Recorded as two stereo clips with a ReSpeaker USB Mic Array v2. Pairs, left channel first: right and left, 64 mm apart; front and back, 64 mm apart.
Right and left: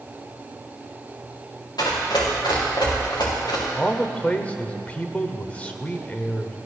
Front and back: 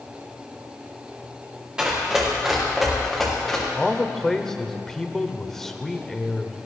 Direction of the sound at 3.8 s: 75° right.